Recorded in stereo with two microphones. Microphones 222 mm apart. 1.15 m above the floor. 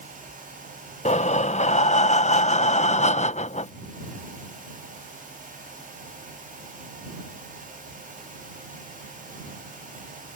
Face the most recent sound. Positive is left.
turn(degrees=30)  # may be behind; listen again after turning